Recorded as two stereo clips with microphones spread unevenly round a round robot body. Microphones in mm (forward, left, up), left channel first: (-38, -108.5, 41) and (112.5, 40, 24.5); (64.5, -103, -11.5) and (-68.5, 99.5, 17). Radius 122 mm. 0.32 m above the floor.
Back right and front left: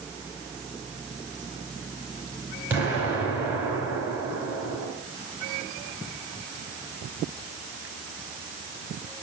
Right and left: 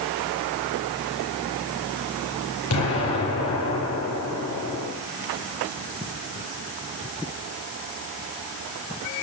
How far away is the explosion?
About 6 m.